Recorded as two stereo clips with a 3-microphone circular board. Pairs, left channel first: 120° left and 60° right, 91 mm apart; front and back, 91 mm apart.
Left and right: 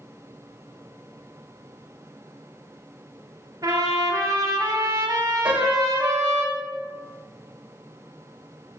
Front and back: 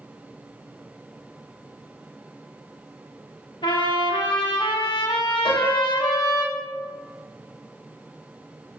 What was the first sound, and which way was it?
A trumpet, 15° right.